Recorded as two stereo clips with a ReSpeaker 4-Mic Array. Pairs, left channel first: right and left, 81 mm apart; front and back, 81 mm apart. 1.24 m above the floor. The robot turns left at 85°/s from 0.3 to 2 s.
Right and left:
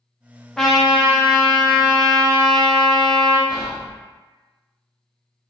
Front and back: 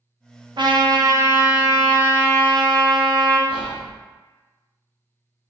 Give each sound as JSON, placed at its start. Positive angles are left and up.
{"t": 0.6, "sound": "a trumpet", "azimuth_deg": -175, "distance_m": 0.5}
{"t": 3.5, "sound": "whispering", "azimuth_deg": 175, "distance_m": 0.6}